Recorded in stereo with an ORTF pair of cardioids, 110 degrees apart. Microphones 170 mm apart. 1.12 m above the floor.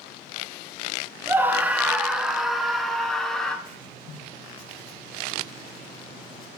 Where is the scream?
10° right, 1.5 m; by 3.5 s 5° left, 3 m.